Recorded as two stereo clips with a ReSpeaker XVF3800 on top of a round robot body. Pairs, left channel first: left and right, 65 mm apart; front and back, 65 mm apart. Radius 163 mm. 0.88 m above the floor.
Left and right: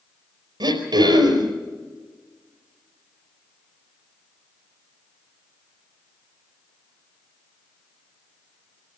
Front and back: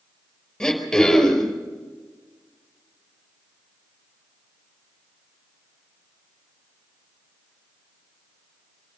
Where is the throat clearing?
85° right, 4.5 m.